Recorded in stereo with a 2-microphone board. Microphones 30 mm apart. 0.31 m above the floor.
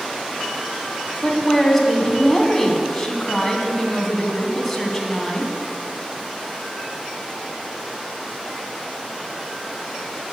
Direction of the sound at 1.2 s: 10° left (ahead or behind).